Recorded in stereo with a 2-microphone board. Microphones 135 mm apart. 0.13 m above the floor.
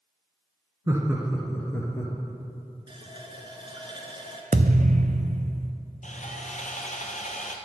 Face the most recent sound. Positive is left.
turn(degrees=70)  # may be behind; listen again after turning